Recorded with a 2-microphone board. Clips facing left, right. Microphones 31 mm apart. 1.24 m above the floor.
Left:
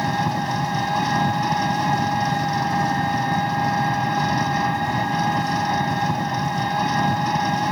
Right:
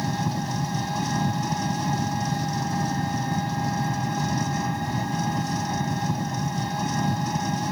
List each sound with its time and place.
0.0 s an engine running: 30° left (ahead or behind)